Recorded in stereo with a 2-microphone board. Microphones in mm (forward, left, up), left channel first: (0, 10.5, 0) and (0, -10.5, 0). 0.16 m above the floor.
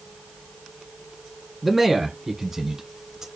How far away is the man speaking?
About 1.4 m.